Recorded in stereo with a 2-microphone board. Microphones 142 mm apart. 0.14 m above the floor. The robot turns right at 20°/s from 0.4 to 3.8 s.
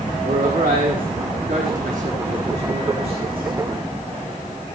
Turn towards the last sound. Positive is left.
turn(degrees=-30)